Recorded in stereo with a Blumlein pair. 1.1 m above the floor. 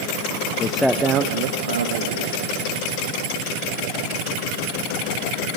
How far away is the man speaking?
About 0.9 m.